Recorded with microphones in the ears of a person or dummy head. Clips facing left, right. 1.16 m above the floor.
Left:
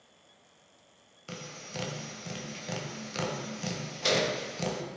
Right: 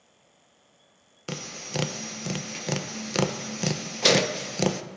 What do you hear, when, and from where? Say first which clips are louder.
1.3 s tapping: right 7 dB; 65° right (ahead or behind), 0.6 m